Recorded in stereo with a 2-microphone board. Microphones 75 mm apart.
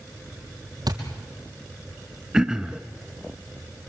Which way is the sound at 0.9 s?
70° right (ahead or behind).